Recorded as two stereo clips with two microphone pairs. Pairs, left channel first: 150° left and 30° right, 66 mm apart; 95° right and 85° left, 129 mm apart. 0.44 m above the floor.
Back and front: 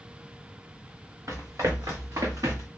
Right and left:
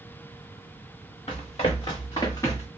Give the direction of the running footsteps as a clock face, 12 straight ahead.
2 o'clock.